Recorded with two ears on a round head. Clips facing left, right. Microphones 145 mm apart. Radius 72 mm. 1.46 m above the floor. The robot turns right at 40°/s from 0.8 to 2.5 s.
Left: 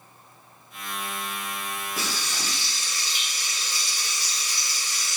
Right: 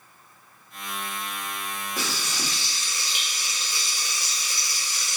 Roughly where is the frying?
Centre.